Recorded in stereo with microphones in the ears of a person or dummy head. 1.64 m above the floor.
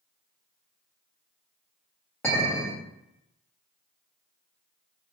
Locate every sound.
2.2 s a clink: 5° left (ahead or behind), 0.9 m